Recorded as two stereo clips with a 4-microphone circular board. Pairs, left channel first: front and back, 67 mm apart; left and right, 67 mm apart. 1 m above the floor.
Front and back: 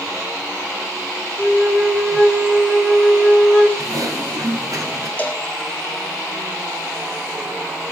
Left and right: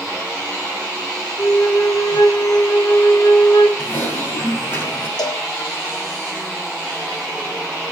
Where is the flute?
95° left, 3 m.